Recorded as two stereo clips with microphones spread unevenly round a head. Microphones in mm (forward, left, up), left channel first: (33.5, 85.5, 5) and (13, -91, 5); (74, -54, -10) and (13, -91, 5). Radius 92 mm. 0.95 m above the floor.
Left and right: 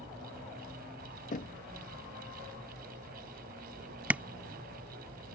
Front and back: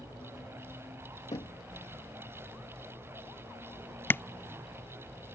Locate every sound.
1.3 s knocking: 40° left
4.1 s tapping: 20° right